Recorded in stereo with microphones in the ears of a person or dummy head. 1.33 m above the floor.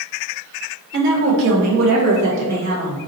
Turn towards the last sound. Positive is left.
turn(degrees=-70)  # may be behind; listen again after turning